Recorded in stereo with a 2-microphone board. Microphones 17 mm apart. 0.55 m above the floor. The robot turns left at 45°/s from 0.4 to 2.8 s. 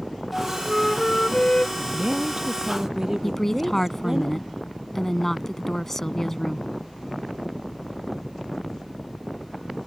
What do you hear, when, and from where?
0.3 s a flute: 175° right; by 1.7 s 125° left
1.8 s a woman speaking: 105° right; by 4.2 s 150° right
3.2 s a woman speaking: 15° left (ahead or behind)